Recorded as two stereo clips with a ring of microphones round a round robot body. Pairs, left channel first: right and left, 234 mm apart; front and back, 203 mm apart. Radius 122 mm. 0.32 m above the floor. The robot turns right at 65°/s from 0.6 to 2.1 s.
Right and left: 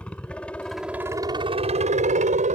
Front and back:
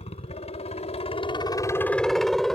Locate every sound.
0.0 s a helicopter: 10° right; by 2.5 s 85° left